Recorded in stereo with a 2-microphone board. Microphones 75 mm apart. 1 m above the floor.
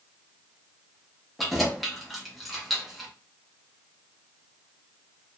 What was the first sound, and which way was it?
Keys jangling, centre (ahead or behind).